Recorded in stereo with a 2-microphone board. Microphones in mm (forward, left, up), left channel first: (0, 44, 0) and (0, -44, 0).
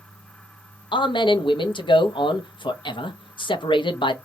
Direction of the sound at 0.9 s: 65° left (ahead or behind).